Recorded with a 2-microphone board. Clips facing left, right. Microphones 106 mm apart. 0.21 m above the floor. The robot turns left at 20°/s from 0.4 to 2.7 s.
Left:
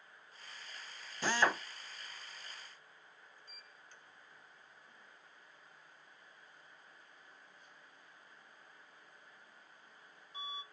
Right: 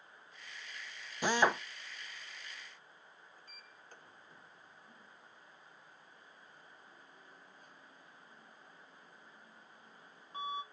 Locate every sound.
1.2 s a drill: 15° right (ahead or behind), 0.7 m; by 1.6 s 20° right (ahead or behind), 0.7 m
3.4 s a sliding door: 45° right (ahead or behind), 0.6 m